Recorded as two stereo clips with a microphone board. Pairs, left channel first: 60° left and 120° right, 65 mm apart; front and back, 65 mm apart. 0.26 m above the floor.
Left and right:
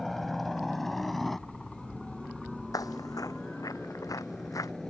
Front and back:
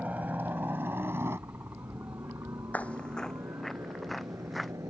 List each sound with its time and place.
0.0 s a helicopter: 145° left; by 4.9 s 150° left
2.7 s footsteps: 60° left; by 4.7 s 90° left